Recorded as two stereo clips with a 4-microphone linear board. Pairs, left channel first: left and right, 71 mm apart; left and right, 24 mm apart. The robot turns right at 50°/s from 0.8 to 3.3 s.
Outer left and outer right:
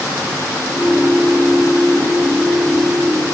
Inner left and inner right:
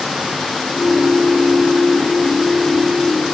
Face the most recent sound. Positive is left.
No sound to turn to.